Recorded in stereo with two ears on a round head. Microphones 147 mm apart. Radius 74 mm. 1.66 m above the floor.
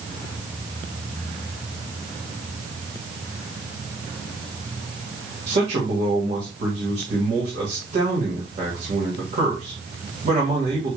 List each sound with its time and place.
5.5 s a man speaking: 45° right (ahead or behind), 1.7 m